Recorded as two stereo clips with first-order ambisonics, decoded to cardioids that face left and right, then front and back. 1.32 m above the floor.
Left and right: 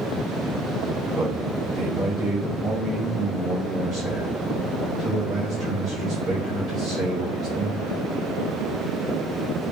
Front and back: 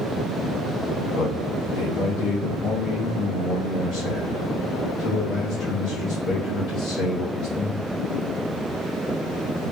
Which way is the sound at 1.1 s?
25° right.